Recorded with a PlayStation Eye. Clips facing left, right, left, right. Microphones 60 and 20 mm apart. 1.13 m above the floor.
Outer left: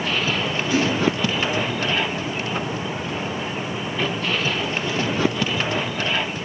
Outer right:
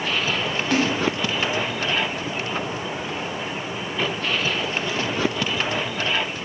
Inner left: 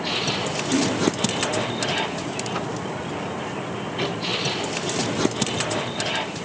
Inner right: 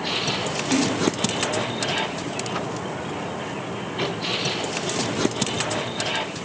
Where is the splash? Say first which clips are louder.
Outer left 1 dB, even; 60° right (ahead or behind), 9 m.